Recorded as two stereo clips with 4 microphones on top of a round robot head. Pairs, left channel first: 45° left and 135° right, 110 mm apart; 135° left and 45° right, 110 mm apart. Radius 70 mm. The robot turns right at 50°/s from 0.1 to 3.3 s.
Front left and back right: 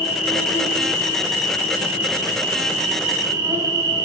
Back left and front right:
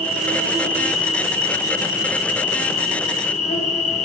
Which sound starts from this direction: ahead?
An insect, at 0.0 s.